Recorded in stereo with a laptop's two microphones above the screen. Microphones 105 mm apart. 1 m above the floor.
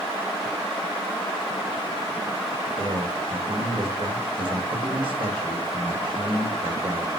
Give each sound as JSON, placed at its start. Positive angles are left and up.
{"t": 2.8, "sound": "a man speaking", "side_deg": -55, "distance_m": 1.7}